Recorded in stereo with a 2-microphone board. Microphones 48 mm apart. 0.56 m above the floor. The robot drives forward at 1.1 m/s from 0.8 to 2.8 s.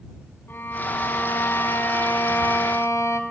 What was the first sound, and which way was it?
A violin, 45° left (ahead or behind).